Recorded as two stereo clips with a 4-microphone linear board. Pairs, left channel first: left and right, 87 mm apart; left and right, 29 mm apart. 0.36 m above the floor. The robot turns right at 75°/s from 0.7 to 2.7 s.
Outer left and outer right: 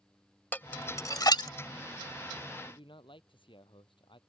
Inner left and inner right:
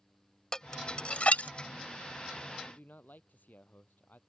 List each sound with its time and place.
0.5 s dishes clattering: 20° left (ahead or behind); by 1.5 s 55° left (ahead or behind)
2.6 s a man speaking: 70° left (ahead or behind); by 4.2 s 75° left (ahead or behind)